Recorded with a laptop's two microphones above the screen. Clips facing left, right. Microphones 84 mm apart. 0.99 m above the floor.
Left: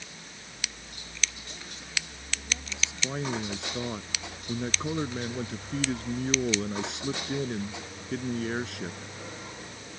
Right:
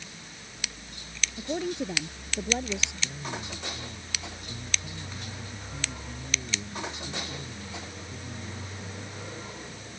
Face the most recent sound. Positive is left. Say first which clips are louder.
# left 5 dB
turn(degrees=85)